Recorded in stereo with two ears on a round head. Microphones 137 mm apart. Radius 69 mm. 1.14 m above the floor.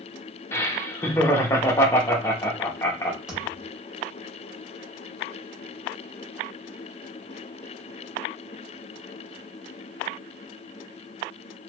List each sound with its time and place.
0.5 s laughter: 20° left (ahead or behind), 0.6 m
3.3 s a thud: 5° right (ahead or behind), 1.6 m